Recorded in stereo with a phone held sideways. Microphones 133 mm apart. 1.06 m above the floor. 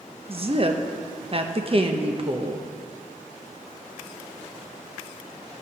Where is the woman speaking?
45° right (ahead or behind), 0.8 m.